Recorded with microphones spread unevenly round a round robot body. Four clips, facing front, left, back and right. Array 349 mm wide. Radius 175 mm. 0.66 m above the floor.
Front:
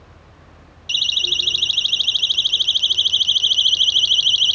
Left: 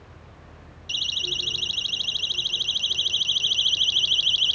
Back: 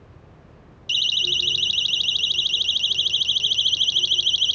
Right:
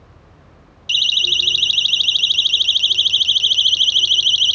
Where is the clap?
I don't hear a clap.